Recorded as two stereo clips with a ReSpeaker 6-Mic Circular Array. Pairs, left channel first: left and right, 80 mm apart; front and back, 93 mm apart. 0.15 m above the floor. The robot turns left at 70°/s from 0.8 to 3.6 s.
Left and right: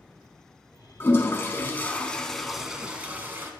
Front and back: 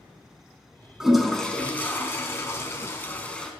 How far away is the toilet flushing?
About 1.0 m.